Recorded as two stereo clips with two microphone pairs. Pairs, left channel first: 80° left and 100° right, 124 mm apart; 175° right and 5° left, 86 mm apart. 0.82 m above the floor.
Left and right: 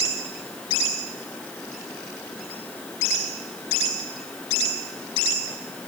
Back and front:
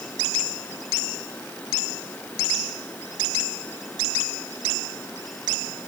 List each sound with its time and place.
Only background noise.